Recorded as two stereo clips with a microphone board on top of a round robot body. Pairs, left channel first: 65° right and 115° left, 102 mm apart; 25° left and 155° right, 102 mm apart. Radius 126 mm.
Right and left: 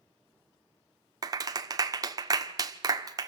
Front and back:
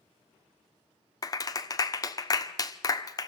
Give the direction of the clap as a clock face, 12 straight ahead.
10 o'clock.